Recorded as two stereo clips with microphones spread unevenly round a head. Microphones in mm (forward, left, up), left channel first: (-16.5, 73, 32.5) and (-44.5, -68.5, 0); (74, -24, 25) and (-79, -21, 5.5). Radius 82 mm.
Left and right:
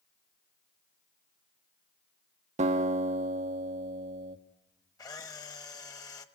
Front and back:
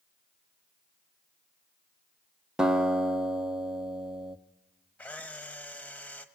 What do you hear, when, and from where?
2.6 s a guitar: 100° right, 1.1 m
5.0 s a camera shutter: 65° left, 1.1 m